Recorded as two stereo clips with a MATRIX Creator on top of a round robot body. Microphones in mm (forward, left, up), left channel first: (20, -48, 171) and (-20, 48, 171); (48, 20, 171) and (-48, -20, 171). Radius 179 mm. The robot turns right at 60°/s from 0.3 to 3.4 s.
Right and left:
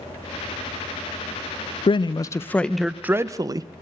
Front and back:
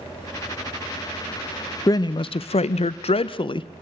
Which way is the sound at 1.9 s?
35° right.